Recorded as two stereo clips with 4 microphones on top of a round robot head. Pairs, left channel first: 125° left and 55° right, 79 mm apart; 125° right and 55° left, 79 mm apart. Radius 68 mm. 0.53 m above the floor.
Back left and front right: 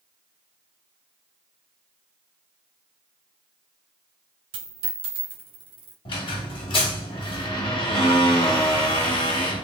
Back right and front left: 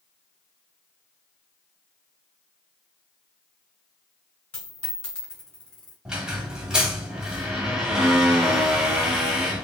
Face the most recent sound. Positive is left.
turn(degrees=130)